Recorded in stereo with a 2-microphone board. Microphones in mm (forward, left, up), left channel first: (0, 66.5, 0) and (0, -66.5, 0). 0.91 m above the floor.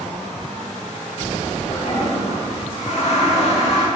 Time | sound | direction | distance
1.7 | a toilet flushing | 55° left (ahead or behind) | 1.6 m